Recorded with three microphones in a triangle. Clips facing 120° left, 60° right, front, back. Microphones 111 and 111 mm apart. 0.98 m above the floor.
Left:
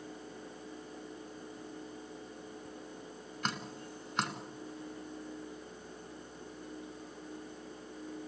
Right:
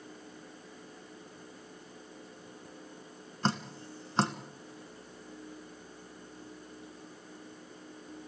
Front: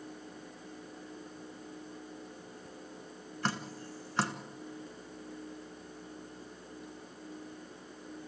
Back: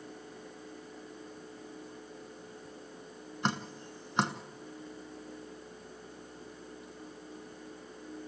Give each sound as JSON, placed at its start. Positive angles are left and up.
{"t": 3.4, "sound": "dripping", "azimuth_deg": -115, "distance_m": 1.5}